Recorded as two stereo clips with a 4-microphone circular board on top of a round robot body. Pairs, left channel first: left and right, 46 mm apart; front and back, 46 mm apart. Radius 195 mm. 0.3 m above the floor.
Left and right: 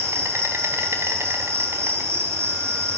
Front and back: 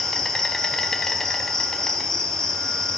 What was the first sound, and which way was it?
An insect, 75° right.